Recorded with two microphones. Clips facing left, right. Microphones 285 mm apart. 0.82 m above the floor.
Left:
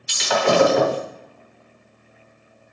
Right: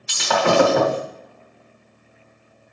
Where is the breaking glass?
70° right (ahead or behind), 2 m.